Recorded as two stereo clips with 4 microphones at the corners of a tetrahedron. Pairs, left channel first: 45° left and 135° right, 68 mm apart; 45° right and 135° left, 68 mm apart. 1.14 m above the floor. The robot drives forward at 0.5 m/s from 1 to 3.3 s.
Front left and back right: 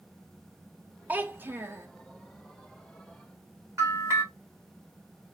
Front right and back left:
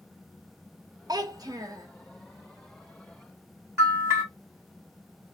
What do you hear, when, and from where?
1.1 s a child speaking: 160° left, 0.6 m; by 1.9 s 165° left, 1.0 m
3.8 s a bell: straight behind, 1.8 m